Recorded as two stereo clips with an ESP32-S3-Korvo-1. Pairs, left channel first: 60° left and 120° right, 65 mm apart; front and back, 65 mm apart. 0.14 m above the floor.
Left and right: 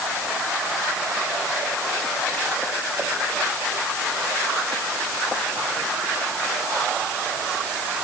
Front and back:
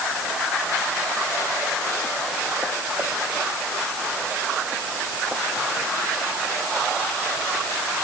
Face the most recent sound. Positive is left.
No sound to turn to.